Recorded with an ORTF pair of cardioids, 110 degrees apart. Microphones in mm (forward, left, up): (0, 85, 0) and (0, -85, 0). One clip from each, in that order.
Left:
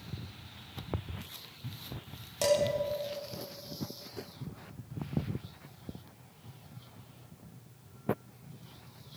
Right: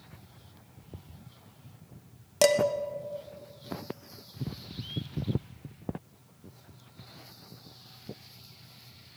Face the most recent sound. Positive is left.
turn(degrees=-55)